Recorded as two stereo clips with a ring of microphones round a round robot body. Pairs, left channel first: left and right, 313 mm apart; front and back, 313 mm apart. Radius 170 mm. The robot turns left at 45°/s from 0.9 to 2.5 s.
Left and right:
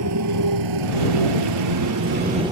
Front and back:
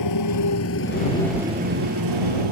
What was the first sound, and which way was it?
A motorcycle, 40° right.